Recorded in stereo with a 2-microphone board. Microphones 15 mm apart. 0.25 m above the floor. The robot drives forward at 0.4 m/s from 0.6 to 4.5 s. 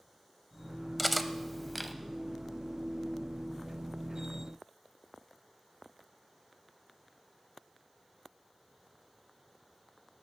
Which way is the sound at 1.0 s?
5° left (ahead or behind).